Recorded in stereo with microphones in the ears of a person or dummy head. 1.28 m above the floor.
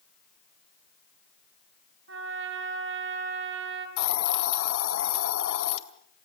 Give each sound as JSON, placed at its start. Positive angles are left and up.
{"t": 2.1, "sound": "a trumpet", "side_deg": -70, "distance_m": 5.0}
{"t": 4.0, "sound": "a hiss", "side_deg": 70, "distance_m": 2.5}